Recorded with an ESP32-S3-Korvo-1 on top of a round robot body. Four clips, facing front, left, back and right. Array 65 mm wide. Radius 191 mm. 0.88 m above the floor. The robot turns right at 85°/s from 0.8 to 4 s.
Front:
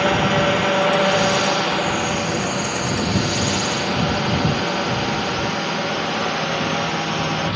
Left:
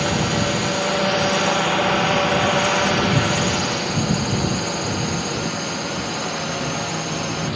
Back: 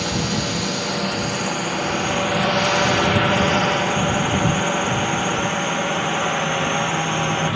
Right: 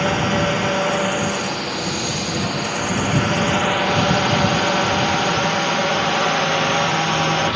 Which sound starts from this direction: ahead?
A drone, at 0.0 s.